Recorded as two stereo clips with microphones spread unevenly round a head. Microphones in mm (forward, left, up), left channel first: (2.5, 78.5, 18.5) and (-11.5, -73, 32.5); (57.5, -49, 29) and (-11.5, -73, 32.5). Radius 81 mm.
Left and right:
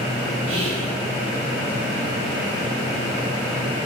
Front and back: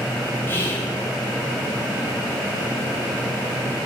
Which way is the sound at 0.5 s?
40° right.